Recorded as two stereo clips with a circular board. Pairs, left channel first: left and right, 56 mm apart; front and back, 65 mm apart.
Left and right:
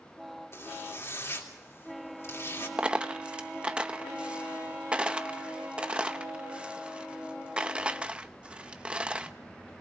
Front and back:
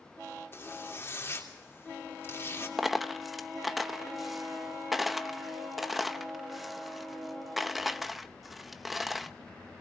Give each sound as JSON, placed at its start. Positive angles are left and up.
{"t": 0.5, "sound": "a zipper", "azimuth_deg": 50, "distance_m": 3.0}
{"t": 2.8, "sound": "a dropped coin", "azimuth_deg": -100, "distance_m": 0.8}